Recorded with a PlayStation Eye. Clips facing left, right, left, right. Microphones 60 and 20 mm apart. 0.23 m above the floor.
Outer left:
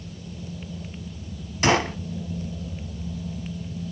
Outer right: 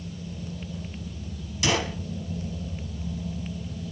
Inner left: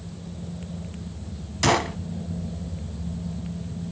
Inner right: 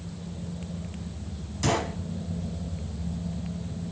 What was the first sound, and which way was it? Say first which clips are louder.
A gunshot: outer left 5 dB, inner left 5 dB; 40° left (ahead or behind).